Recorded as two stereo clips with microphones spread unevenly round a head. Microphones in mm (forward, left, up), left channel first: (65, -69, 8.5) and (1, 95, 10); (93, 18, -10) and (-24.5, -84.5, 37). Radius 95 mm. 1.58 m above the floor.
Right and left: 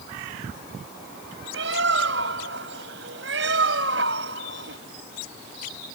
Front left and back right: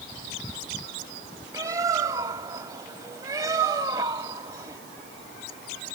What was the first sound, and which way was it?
A bird, 150° left.